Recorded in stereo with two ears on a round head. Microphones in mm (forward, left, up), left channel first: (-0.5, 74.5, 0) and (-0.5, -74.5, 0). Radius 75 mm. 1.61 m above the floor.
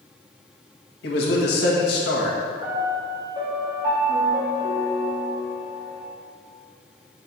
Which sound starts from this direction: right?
A piano, at 2.6 s.